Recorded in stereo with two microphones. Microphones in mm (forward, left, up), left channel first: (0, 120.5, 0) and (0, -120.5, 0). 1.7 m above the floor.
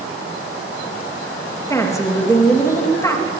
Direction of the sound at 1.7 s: 10° left (ahead or behind).